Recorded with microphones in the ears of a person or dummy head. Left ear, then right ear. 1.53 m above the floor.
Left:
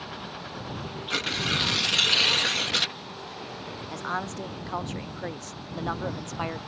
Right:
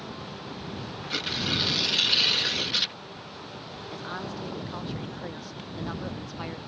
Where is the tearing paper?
25° left (ahead or behind).